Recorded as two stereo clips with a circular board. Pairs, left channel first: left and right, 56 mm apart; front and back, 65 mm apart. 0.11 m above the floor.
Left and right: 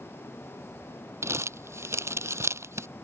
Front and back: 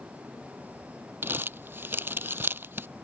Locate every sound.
1.2 s crumpling: 125° right